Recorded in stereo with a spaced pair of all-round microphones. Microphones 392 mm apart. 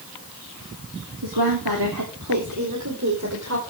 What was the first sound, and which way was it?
A woman speaking, 75° right (ahead or behind).